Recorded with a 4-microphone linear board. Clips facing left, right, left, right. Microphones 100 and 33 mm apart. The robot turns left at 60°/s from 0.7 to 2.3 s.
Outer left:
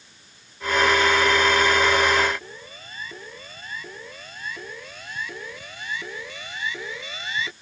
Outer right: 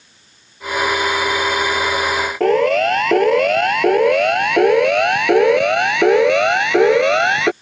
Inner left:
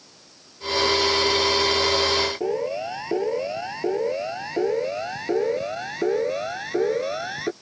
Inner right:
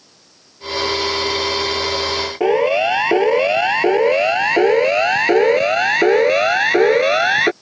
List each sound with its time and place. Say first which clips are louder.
2.4 s a siren: outer right 30 dB, inner right 11 dB; 80° right; by 7.5 s 75° right (ahead or behind)